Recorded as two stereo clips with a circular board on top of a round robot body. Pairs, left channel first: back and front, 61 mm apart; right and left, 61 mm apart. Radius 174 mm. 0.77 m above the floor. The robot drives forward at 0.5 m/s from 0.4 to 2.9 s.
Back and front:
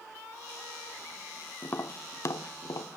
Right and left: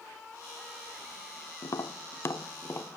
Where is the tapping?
125° right, 0.9 m; by 3.0 s 145° right, 1.4 m.